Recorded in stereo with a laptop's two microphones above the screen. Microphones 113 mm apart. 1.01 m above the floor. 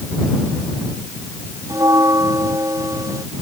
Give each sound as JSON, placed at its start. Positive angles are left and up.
{"t": 1.7, "sound": "a bell", "side_deg": -30}